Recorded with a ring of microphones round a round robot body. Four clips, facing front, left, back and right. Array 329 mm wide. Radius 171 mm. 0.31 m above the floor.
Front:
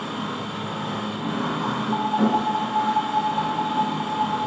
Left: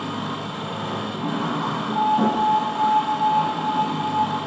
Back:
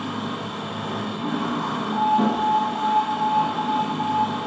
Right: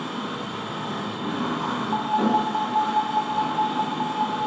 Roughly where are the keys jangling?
No keys jangling in this recording.